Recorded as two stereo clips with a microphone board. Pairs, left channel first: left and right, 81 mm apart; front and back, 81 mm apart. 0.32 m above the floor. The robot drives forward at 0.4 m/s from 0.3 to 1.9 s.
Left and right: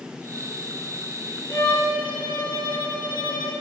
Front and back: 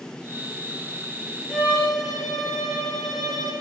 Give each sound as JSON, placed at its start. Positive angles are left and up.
{"t": 1.5, "sound": "a violin", "azimuth_deg": 100, "distance_m": 7.0}